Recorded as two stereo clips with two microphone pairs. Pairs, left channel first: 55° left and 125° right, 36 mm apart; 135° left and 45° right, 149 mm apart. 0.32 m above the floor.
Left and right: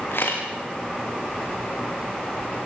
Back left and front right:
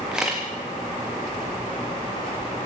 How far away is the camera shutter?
About 5.5 m.